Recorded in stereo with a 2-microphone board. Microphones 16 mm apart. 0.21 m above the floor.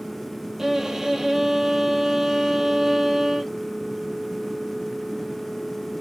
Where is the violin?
20° right (ahead or behind), 0.9 m.